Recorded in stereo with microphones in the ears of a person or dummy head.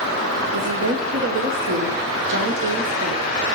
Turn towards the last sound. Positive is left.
turn(degrees=-65)  # may be behind; listen again after turning